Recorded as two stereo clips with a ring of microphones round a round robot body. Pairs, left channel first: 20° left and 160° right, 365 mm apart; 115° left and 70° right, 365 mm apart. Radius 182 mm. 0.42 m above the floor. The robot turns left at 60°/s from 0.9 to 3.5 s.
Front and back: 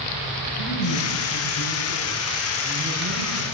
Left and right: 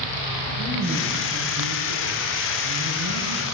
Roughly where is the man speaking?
Ahead left.